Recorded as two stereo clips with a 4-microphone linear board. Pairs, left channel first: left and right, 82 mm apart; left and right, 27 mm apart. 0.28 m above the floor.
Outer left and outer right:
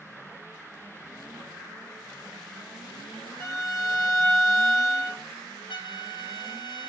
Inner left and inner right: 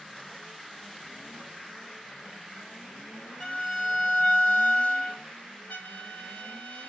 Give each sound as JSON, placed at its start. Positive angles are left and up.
{"t": 3.4, "sound": "a violin", "side_deg": 25, "distance_m": 1.7}
{"t": 5.7, "sound": "a trumpet", "side_deg": 70, "distance_m": 1.6}